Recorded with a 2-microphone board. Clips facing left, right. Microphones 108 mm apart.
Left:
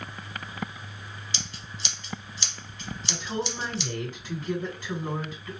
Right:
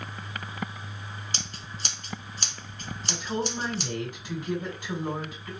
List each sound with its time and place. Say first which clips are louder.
1.3 s scissors: right 1 dB; 45° right (ahead or behind), 0.7 m
3.1 s a woman speaking: right 2 dB; 15° right (ahead or behind), 2.5 m